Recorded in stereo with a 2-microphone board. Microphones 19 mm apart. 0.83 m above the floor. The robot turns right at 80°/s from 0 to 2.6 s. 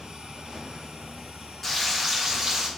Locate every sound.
1.6 s frying: 165° left, 1.2 m; by 2.7 s 120° right, 1.2 m